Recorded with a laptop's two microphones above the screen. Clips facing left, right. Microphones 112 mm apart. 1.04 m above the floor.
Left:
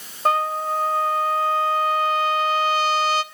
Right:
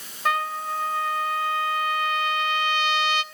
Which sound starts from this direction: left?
A trumpet, at 0.2 s.